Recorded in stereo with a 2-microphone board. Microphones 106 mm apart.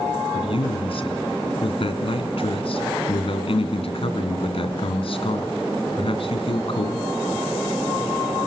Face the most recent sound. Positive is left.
turn(degrees=60)  # may be behind; listen again after turning